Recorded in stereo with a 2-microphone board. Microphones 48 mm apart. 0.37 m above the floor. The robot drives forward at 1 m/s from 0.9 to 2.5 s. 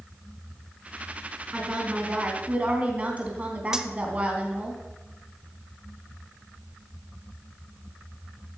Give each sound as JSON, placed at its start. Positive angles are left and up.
{"t": 1.5, "sound": "a woman speaking", "side_deg": -25, "distance_m": 4.5}
{"t": 3.7, "sound": "cutlery clinking", "side_deg": -15, "distance_m": 0.7}